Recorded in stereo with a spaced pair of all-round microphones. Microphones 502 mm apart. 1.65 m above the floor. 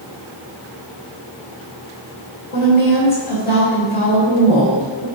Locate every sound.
2.5 s a woman speaking: 75° left (ahead or behind), 3 m